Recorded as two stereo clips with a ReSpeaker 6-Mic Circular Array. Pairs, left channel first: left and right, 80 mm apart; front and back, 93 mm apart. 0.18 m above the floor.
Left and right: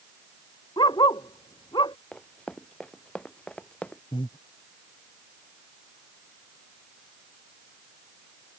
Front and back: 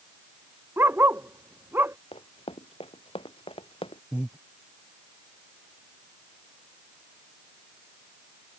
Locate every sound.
0.8 s a dog barking: 115° left
2.1 s running footsteps: 10° left; by 4.0 s 15° left
4.1 s breathing: 100° left